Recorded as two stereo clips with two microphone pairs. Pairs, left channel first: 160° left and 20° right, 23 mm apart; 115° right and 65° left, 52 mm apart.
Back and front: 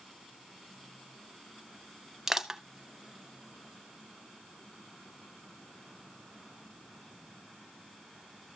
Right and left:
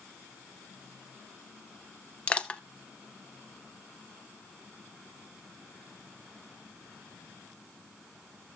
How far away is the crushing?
About 0.6 m.